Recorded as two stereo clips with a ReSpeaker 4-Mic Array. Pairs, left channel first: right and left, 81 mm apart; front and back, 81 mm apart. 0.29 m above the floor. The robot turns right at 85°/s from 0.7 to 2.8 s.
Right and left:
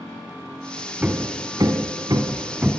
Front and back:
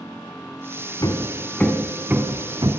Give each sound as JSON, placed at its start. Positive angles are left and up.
{"t": 1.0, "sound": "hammering", "azimuth_deg": 20, "distance_m": 1.9}